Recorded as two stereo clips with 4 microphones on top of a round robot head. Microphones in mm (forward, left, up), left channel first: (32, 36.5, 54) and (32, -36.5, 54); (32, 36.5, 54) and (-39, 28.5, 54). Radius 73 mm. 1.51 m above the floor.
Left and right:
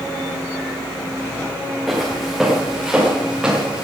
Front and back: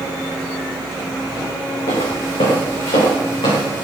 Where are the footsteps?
Straight ahead, 6 m; by 3.8 s 15° right, 7 m.